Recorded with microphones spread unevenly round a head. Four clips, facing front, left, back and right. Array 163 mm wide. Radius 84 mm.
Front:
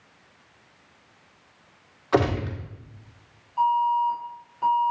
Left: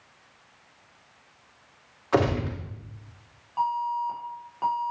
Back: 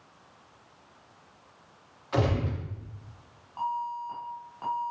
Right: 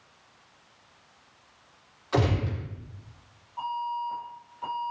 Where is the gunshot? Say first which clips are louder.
Left 3 dB, front 6 dB; 30° left, 3 m.